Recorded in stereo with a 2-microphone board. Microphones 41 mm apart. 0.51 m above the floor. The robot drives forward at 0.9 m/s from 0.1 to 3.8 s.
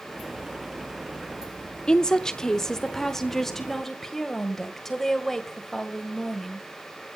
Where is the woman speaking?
20° left (ahead or behind), 0.7 m; by 6.7 s 10° left (ahead or behind), 1.9 m.